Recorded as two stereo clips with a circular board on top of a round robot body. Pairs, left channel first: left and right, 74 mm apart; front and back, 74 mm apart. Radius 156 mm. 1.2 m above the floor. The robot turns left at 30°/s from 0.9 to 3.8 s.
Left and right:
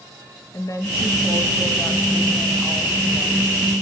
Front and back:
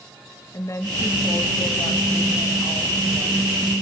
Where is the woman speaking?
45° left, 2.0 m; by 3.5 s 30° right, 2.0 m.